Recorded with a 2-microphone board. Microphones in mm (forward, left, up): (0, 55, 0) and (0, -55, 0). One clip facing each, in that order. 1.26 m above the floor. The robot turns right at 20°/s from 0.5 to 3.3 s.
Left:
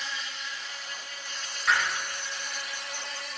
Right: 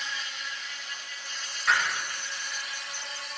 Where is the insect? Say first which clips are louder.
Even; 35° left, 1.0 m; by 3.4 s 90° left, 1.0 m.